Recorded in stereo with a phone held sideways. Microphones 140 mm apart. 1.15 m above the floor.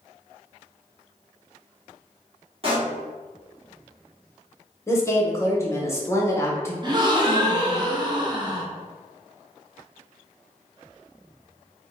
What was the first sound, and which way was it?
A pop, 40° right (ahead or behind).